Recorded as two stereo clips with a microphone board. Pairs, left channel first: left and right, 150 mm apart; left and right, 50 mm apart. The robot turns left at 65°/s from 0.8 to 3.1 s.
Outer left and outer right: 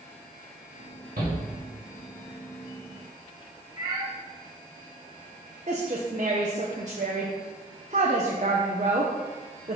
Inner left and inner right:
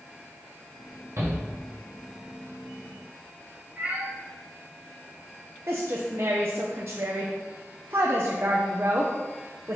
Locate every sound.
1.2 s a shout: 75° right (ahead or behind), 1.9 m; by 1.4 s 60° right (ahead or behind), 1.9 m
3.8 s a cat meowing: 25° right (ahead or behind), 2.0 m
5.7 s a woman speaking: 50° right (ahead or behind), 0.8 m